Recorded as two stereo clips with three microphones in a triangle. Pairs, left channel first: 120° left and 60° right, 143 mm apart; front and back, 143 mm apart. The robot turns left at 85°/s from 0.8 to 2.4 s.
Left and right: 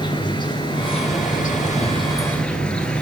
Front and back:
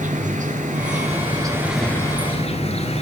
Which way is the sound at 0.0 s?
175° left.